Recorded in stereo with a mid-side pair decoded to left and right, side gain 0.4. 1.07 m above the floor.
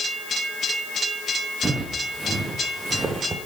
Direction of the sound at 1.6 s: 40° right.